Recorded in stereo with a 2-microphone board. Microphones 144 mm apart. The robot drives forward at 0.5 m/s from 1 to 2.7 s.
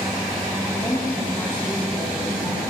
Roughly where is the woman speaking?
Left.